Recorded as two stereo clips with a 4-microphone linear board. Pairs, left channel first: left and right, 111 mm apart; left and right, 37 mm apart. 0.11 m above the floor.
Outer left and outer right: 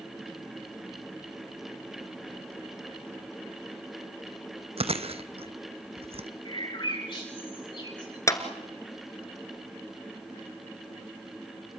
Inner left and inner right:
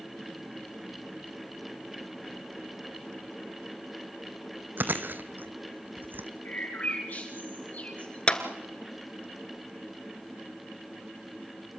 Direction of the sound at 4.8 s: 60° right (ahead or behind).